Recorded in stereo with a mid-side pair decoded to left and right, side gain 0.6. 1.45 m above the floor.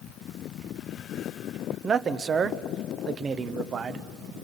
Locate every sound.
1.8 s a man speaking: 40° right, 0.9 m